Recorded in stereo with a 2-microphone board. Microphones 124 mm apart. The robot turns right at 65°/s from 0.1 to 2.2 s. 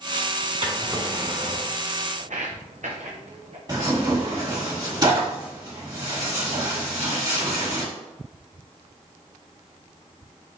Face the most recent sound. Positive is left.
turn(degrees=-35)  # may be behind; listen again after turning